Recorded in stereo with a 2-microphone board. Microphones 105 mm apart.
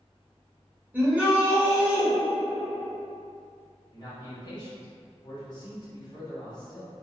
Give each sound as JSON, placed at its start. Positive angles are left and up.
{"t": 0.9, "sound": "a shout", "side_deg": -15, "distance_m": 1.2}
{"t": 3.9, "sound": "a man speaking", "side_deg": 40, "distance_m": 1.1}